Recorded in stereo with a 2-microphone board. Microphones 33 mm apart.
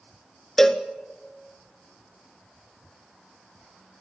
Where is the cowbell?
10° left (ahead or behind), 0.9 m.